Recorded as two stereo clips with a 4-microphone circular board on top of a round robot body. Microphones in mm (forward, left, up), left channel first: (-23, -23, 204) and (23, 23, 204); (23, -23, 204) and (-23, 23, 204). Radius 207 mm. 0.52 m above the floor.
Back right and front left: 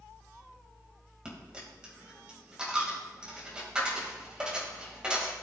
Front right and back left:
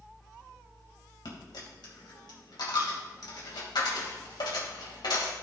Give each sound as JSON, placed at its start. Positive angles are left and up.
{"t": 1.2, "sound": "a dropped coin", "azimuth_deg": -30, "distance_m": 2.0}